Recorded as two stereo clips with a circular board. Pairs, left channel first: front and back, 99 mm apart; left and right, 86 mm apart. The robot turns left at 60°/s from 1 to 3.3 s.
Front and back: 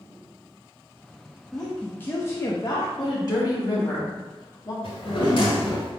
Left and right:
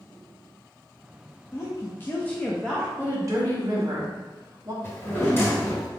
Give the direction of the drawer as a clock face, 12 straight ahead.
11 o'clock.